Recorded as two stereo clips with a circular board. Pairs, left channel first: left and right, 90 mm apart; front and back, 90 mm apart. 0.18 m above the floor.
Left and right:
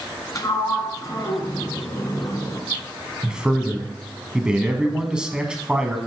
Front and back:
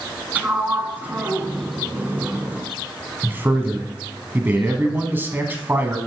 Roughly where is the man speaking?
Behind right.